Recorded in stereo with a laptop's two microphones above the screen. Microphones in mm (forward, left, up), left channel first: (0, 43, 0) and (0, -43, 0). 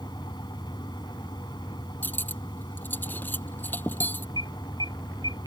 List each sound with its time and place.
0.0 s a fan: 60° left (ahead or behind)
2.0 s cutlery clinking: 25° left (ahead or behind)
4.4 s an alarm: 60° right (ahead or behind)